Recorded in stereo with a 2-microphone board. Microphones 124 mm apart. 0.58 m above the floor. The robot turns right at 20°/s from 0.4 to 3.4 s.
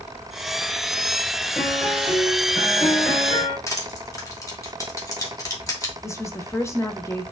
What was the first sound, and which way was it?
A piano, straight ahead.